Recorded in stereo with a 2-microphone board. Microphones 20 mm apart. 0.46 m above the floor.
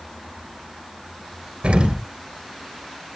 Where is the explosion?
75° right (ahead or behind), 3 m.